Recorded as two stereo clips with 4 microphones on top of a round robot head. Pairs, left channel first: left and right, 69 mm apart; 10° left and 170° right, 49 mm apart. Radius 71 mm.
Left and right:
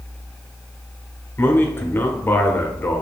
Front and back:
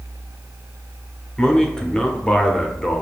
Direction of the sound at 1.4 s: 70° left.